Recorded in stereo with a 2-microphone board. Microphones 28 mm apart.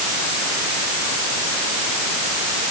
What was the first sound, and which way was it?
Only background noise.